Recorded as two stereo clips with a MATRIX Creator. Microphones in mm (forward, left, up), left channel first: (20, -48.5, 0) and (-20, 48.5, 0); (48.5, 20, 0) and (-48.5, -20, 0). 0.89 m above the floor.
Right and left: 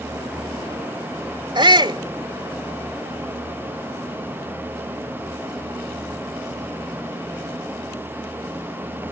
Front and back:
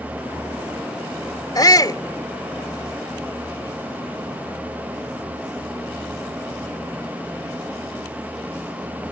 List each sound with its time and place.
1.6 s a shout: 75° left